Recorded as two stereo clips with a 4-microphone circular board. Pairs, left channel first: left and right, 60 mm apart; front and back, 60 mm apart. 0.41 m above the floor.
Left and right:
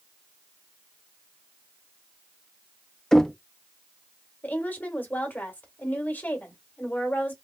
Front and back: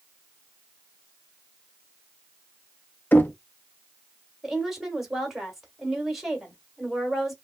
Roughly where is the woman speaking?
Left.